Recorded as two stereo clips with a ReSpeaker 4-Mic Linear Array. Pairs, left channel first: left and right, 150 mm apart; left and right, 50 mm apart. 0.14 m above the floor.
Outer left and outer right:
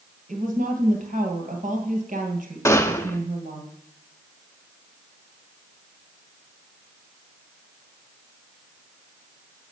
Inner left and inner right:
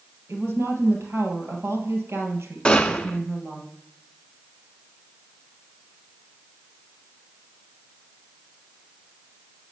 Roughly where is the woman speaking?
Right.